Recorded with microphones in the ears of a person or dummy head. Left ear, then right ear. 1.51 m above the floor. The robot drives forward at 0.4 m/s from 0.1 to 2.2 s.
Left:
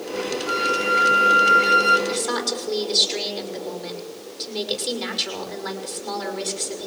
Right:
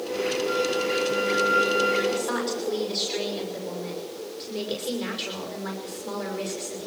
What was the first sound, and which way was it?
A flute, 45° left (ahead or behind).